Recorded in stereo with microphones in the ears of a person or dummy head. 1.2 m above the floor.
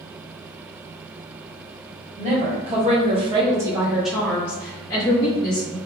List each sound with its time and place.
2.2 s a woman speaking: 35° right (ahead or behind), 0.9 m; by 5.8 s 20° left (ahead or behind), 1.2 m